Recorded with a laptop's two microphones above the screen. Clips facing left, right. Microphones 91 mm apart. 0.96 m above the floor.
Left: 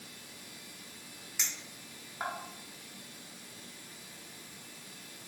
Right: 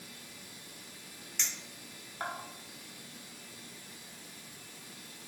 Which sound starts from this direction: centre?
A clink, at 1.4 s.